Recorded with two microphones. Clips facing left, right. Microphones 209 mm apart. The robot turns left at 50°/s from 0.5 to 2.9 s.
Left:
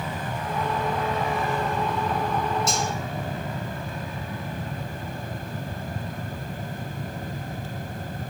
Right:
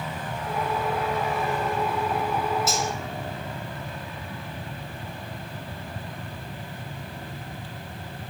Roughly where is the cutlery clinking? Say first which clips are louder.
Even; centre.